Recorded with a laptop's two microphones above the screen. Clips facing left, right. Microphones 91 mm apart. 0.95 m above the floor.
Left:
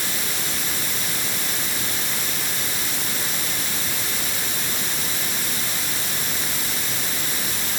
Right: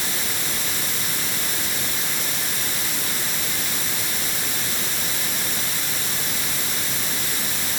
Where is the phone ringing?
No phone ringing in this recording.